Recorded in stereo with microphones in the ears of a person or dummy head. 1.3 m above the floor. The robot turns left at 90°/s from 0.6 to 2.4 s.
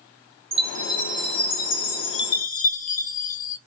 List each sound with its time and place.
0.5 s a chime: 150° right, 0.5 m; by 3.6 s 50° left, 0.5 m